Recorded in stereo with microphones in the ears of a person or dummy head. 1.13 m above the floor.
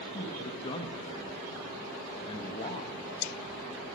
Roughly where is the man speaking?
Left.